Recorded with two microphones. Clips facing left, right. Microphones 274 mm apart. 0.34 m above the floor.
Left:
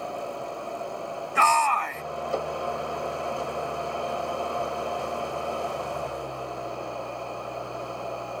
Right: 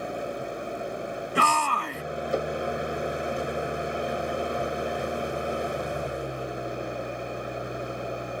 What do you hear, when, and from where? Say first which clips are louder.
0.0 s an engine running: right 2 dB; 20° right (ahead or behind)
1.4 s a shout: left 1 dB; 40° right (ahead or behind)